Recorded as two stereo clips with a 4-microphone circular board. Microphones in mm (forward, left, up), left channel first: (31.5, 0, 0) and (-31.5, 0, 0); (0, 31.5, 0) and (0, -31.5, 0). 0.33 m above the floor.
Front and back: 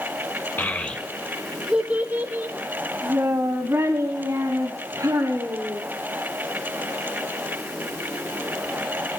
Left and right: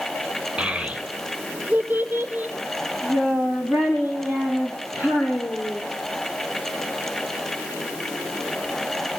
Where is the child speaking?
25° right, 0.9 m; by 5.8 s 155° right, 3 m.